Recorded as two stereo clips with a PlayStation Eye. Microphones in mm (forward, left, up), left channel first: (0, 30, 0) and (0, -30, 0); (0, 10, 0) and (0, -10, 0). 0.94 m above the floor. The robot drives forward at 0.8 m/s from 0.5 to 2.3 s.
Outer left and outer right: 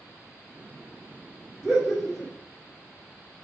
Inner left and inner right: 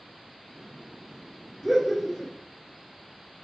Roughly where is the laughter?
Centre.